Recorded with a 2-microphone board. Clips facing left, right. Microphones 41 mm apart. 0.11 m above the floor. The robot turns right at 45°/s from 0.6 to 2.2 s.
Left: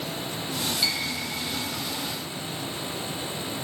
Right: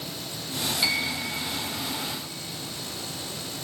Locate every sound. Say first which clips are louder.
0.8 s a piano: right 1 dB; 20° right (ahead or behind), 0.7 m; by 1.2 s 5° right (ahead or behind), 0.7 m